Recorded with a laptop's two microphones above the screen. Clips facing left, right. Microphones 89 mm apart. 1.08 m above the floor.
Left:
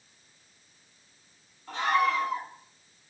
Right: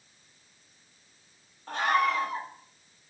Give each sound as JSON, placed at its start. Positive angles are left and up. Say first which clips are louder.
{"t": 1.7, "sound": "a scream", "louder": "even", "side_deg": -60, "distance_m": 7.5}